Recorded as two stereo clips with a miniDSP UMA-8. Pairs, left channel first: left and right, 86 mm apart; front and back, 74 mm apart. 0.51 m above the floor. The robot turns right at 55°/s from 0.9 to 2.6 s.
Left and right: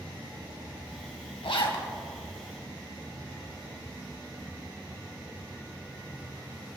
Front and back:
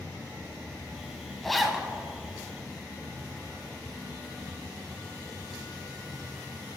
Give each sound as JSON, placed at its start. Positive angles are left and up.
{"t": 1.4, "sound": "a zipper", "azimuth_deg": 85, "distance_m": 1.6}